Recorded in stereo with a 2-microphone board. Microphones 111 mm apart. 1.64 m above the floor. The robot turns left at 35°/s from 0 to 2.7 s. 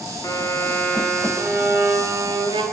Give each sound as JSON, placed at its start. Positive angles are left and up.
{"t": 0.2, "sound": "a violin", "azimuth_deg": 35, "distance_m": 0.5}